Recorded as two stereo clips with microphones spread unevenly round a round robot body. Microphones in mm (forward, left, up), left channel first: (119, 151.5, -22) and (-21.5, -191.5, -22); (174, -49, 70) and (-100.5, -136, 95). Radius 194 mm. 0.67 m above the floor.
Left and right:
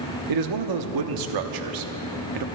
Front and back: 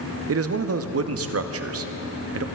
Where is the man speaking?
130° right, 0.8 m.